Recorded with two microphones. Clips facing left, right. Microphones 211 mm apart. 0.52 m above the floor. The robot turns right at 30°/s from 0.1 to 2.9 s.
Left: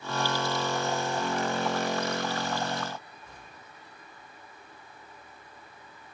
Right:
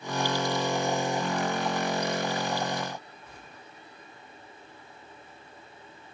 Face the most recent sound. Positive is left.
No sound to turn to.